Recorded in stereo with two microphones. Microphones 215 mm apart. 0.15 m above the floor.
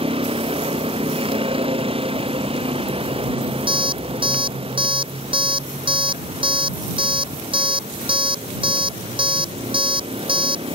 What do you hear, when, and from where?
0.0 s a vehicle: 25° right (ahead or behind)
3.7 s an alarm clock: 25° right (ahead or behind)